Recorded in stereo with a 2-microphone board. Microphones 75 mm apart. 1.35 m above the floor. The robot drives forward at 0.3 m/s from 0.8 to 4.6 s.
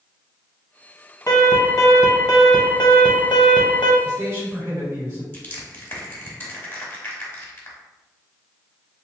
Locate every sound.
1.3 s an alarm: 40° left (ahead or behind), 0.9 m; by 3.9 s 70° left (ahead or behind), 0.6 m
4.0 s a man speaking: 40° right (ahead or behind), 1.9 m; by 5.2 s 35° right (ahead or behind), 2.0 m
5.3 s crushing: 30° left (ahead or behind), 1.0 m